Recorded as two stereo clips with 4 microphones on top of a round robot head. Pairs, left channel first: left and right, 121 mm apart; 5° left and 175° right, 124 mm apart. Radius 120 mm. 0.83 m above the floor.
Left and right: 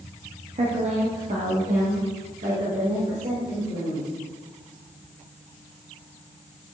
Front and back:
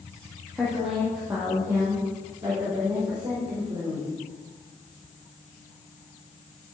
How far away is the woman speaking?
About 1.8 m.